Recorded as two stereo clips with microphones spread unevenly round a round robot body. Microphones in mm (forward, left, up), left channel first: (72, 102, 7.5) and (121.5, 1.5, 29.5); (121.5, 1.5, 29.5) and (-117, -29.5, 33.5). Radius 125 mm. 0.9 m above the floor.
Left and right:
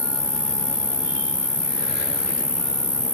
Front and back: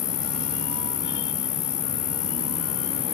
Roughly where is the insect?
Ahead.